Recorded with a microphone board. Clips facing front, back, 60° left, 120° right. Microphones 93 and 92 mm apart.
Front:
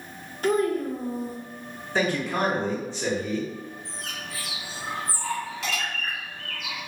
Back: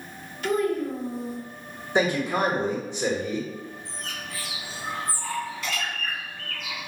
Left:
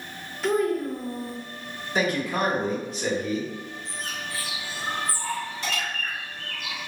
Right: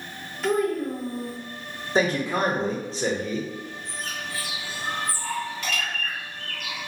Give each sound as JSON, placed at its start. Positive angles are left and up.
{"t": 0.4, "sound": "a child speaking", "azimuth_deg": -30, "distance_m": 0.7}
{"t": 1.9, "sound": "a man speaking", "azimuth_deg": -130, "distance_m": 0.8}
{"t": 3.9, "sound": "a bird", "azimuth_deg": 0, "distance_m": 1.4}